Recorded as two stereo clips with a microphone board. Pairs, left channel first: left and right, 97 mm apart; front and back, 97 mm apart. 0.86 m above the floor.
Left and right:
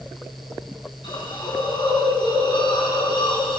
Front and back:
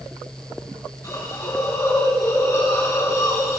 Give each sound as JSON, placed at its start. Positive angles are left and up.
{"t": 1.0, "sound": "a hiss", "azimuth_deg": 60, "distance_m": 3.0}